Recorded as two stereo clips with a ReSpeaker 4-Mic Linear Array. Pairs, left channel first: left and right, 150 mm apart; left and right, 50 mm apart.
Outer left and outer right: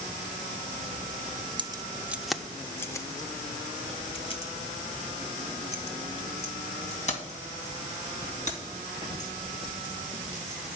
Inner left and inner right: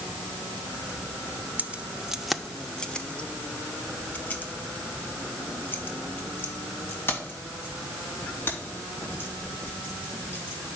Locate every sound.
1.6 s keys jangling: 35° right (ahead or behind), 0.6 m; by 10.8 s 55° left (ahead or behind), 4.5 m